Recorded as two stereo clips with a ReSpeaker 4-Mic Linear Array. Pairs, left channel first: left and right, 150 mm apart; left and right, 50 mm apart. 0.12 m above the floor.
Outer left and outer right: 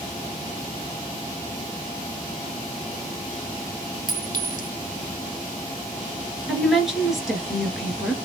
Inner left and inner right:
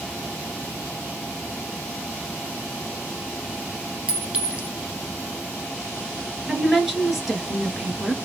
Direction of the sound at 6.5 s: 5° right (ahead or behind).